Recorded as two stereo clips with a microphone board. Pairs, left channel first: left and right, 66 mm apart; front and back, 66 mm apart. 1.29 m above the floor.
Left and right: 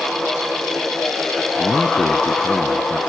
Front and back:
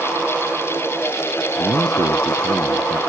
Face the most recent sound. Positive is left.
turn(degrees=165)